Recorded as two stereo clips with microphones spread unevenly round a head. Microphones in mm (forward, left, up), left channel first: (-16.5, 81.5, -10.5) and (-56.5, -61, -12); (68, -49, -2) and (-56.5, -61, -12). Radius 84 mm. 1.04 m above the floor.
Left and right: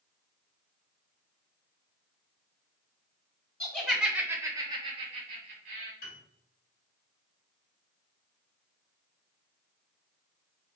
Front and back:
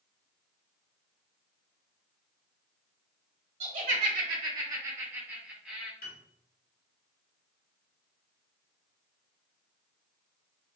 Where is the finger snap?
I don't hear a finger snap.